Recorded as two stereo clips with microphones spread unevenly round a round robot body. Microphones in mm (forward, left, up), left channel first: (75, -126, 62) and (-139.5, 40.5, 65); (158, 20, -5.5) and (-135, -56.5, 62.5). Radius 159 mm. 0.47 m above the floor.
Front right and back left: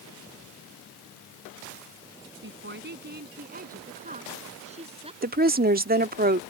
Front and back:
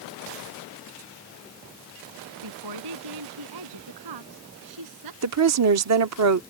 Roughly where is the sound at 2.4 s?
Behind.